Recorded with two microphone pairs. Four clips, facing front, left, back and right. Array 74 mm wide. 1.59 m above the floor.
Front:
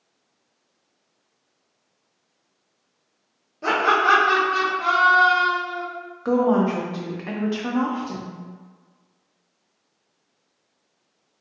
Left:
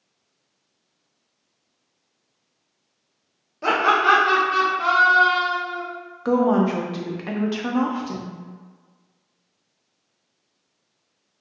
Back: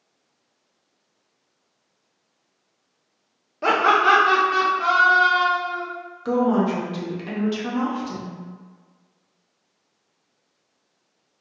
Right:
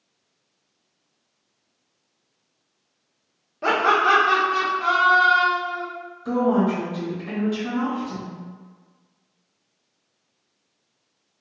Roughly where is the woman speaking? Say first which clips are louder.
Left 2 dB, front 1 dB; left.